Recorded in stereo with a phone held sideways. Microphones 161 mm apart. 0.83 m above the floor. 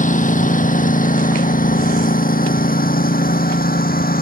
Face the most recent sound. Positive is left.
turn(degrees=65)  # may be behind; listen again after turning